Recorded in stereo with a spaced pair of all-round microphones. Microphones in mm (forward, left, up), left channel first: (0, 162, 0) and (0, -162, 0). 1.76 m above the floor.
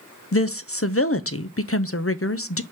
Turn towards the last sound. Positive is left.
turn(degrees=45)  # may be behind; listen again after turning